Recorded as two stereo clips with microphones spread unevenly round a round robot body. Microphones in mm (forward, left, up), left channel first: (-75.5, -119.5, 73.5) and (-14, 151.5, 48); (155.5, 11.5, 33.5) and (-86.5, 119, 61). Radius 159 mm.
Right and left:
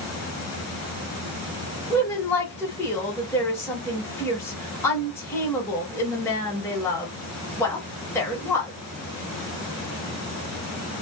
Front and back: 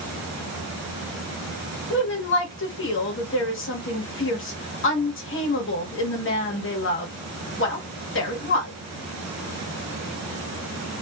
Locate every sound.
1.9 s a woman speaking: 20° right, 1.1 m